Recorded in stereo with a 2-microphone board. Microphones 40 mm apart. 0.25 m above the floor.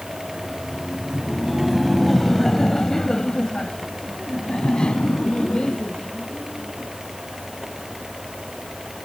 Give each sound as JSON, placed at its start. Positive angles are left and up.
{"t": 0.2, "sound": "laughter", "side_deg": -10}